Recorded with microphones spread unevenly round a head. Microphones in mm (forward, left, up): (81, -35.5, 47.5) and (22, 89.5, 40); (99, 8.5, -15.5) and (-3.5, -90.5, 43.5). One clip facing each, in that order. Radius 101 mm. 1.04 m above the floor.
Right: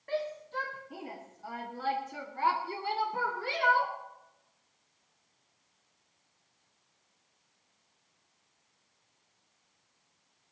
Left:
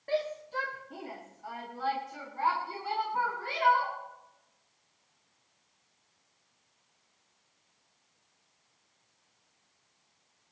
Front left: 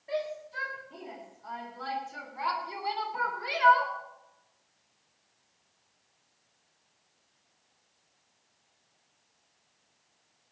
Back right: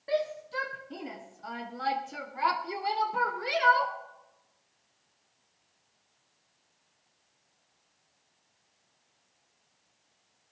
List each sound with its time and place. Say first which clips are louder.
0.1 s a shout: left 3 dB, back right 4 dB; straight behind, 1.5 m; by 3.9 s 95° right, 3.5 m